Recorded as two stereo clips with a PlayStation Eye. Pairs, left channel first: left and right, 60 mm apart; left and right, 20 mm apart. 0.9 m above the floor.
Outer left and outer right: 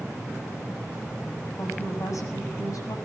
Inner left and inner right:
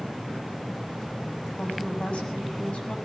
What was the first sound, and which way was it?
A woman speaking, 60° left (ahead or behind).